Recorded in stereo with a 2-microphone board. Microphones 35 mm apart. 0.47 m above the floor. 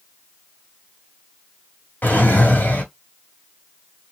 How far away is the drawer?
About 1.7 m.